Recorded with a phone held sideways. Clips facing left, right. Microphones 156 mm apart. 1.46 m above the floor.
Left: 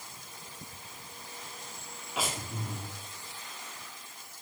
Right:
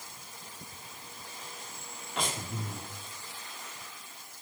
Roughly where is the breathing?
Centre.